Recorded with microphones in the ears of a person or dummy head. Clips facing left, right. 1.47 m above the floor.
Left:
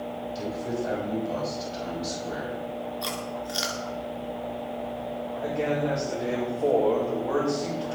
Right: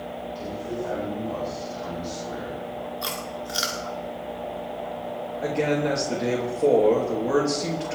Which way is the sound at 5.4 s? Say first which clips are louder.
Right 3 dB; 35° right (ahead or behind).